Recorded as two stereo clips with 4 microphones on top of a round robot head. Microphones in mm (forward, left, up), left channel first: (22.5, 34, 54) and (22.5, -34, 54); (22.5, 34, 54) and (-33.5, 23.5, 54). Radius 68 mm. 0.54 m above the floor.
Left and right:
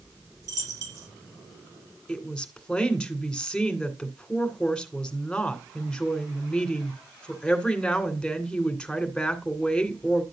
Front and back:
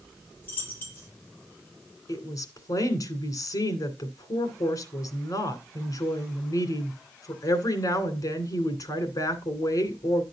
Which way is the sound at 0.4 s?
55° right.